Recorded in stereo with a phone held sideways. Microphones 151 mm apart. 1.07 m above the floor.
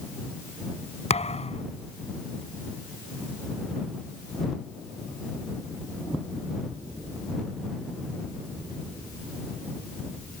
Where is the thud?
45° left (ahead or behind).